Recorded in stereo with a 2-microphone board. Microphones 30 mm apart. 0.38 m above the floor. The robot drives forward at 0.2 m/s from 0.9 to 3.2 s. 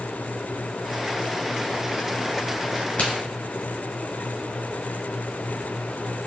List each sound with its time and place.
3.0 s a crack: 55° left (ahead or behind), 1.4 m